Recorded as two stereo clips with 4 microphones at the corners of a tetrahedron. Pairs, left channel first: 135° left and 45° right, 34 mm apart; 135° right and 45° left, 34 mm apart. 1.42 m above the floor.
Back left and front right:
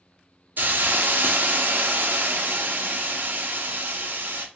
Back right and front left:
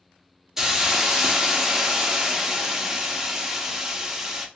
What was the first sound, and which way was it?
A hiss, 30° right.